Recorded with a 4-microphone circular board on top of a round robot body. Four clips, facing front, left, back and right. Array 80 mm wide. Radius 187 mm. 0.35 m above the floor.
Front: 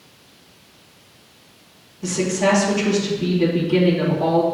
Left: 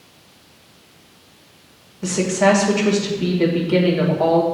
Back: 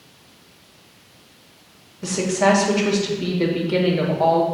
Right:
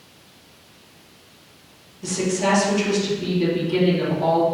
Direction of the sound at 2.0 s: 125° left.